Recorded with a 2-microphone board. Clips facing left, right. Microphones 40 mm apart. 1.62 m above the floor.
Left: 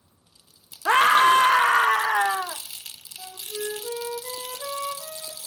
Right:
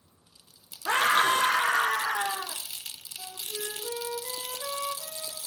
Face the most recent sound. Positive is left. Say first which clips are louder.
# left 5 dB
turn(degrees=15)  # may be behind; listen again after turning